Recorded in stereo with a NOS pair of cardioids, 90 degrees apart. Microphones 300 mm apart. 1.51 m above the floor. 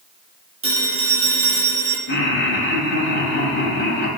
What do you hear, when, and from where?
0.6 s a phone ringing: 20° right, 2.5 m
2.1 s laughter: 40° left, 2 m